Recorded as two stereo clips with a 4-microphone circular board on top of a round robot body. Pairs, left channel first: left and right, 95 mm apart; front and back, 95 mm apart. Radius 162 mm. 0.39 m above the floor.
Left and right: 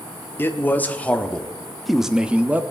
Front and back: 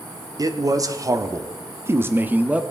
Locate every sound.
0.4 s a man speaking: 150° left, 1.6 m; by 2.6 s 125° right, 1.1 m